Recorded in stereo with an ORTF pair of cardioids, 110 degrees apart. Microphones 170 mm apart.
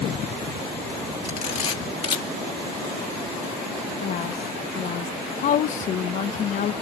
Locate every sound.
1.2 s a camera shutter: 35° left, 2.5 m
4.0 s a woman speaking: 50° left, 1.3 m